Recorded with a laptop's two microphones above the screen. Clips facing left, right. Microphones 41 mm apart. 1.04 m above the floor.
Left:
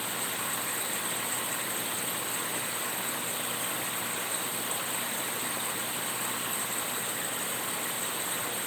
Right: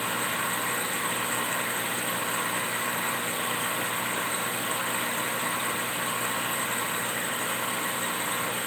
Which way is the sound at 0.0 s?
40° right (ahead or behind).